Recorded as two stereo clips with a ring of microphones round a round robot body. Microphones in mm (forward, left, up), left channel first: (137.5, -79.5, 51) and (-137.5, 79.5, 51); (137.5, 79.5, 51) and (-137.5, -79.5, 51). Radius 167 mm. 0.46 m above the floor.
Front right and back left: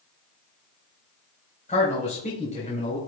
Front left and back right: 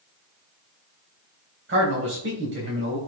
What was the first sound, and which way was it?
A man speaking, 100° right.